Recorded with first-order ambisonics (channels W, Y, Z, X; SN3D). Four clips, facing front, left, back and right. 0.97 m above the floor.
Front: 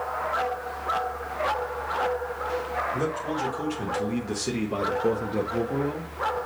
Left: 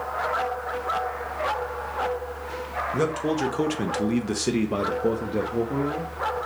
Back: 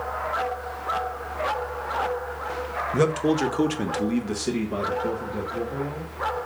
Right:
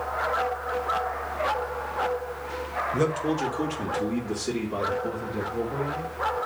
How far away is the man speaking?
About 1.3 m.